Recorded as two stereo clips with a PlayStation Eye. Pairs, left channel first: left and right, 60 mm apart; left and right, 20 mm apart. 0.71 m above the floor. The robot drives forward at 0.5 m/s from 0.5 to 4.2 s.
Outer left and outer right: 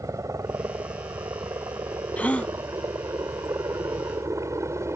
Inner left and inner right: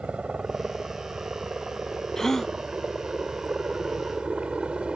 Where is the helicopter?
60° right (ahead or behind); by 5.0 s 50° right (ahead or behind).